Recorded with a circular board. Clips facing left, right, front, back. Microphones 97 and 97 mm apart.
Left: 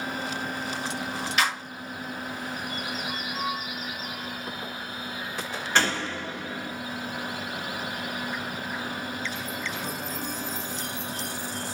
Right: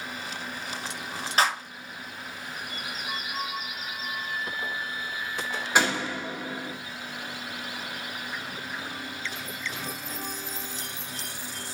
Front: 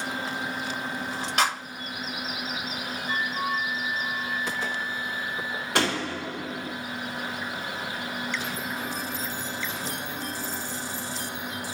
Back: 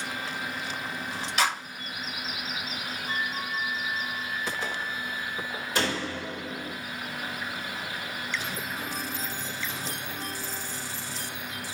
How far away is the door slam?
About 2.0 m.